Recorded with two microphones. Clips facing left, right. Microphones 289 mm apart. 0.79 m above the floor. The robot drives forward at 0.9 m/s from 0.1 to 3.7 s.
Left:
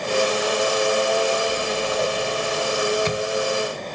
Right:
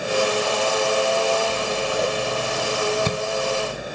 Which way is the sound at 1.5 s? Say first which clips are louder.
Even; 30° right (ahead or behind).